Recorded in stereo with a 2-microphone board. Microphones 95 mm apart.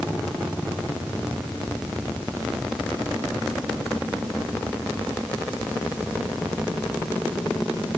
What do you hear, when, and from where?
Only background noise.